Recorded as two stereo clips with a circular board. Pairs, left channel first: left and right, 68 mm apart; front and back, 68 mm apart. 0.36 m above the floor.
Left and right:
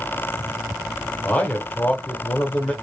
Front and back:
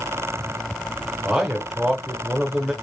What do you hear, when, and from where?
1.2 s a man speaking: 115° left, 0.8 m